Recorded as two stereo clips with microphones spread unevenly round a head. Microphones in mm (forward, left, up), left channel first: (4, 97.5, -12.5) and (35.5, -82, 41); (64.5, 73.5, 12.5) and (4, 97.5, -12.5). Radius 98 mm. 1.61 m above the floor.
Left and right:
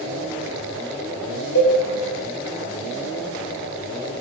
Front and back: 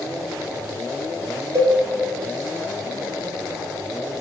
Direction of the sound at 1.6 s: 115° left.